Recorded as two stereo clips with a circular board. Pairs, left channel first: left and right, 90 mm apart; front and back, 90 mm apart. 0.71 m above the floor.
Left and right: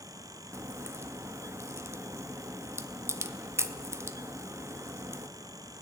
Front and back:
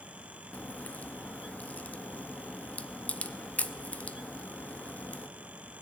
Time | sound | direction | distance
0.5 | a crack | 60° right | 0.6 m